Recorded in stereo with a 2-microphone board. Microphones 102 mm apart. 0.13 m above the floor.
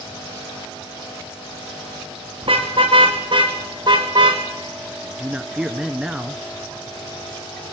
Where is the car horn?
55° right (ahead or behind), 5 m; by 4.4 s 40° right (ahead or behind), 4.5 m.